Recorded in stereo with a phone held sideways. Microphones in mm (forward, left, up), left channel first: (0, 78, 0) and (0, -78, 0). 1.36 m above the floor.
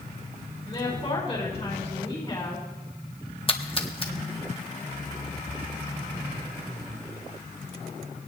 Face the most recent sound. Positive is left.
turn(degrees=35)  # may be behind; listen again after turning